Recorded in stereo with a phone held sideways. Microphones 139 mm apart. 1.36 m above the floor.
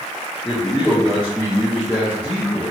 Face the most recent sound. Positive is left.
turn(degrees=10)  # may be behind; listen again after turning